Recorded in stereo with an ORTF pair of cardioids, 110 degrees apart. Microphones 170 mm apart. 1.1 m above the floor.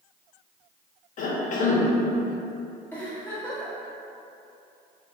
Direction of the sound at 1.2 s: 55° left.